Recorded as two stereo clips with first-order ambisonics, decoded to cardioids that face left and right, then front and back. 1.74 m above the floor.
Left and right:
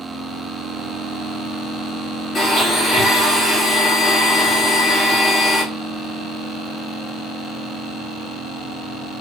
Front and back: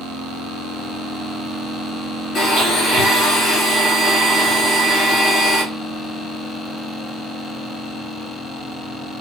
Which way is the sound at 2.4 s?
45° left.